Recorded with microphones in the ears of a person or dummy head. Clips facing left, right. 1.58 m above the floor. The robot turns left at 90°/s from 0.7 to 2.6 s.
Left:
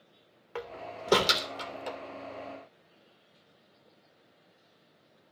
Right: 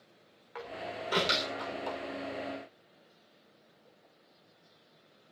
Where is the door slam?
50° left (ahead or behind), 3 m; by 2.0 s 15° left (ahead or behind), 3 m.